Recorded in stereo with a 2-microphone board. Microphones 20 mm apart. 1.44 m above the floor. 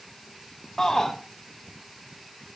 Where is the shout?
25° left (ahead or behind), 3 m.